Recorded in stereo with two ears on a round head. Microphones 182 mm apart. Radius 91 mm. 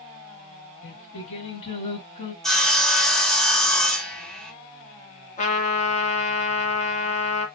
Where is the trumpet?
35° left (ahead or behind), 1.5 m.